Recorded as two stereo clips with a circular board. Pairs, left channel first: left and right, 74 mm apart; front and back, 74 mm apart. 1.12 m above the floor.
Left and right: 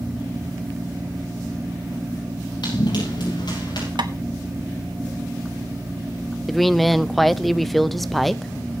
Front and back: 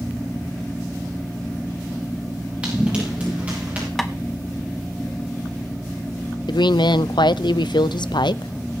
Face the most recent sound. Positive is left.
turn(degrees=0)